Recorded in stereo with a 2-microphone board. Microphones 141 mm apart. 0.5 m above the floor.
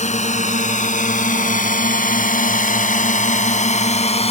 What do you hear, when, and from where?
0.0 s a drone: 55° left (ahead or behind); by 4.3 s 50° left (ahead or behind)